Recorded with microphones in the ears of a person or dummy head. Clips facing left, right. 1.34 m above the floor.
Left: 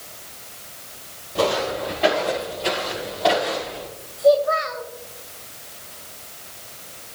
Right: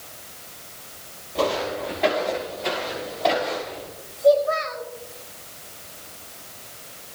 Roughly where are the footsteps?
Centre.